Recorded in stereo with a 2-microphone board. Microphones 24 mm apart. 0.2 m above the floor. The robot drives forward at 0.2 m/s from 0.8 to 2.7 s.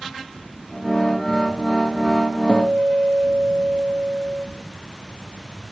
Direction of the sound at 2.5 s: 80° right.